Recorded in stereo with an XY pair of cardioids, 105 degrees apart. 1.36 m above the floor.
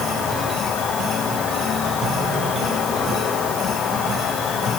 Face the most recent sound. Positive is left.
turn(degrees=60)